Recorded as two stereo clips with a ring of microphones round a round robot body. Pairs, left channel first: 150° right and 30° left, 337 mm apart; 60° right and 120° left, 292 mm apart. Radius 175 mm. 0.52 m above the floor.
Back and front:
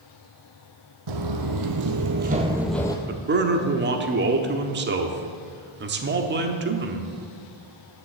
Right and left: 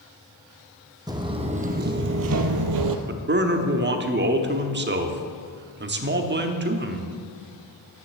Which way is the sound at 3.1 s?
80° left.